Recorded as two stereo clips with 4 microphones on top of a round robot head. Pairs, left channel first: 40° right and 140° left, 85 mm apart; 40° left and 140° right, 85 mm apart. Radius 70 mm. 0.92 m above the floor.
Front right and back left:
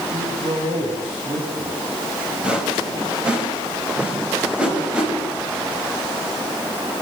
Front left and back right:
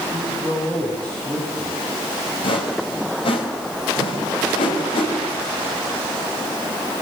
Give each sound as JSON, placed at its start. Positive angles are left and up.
{"t": 0.1, "sound": "a man speaking", "azimuth_deg": 125, "distance_m": 6.0}
{"t": 2.4, "sound": "a whoosh", "azimuth_deg": 60, "distance_m": 5.0}